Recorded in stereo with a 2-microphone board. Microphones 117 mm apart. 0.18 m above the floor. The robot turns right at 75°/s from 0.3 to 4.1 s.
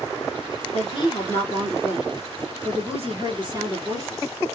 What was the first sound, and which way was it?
A woman speaking, 110° left.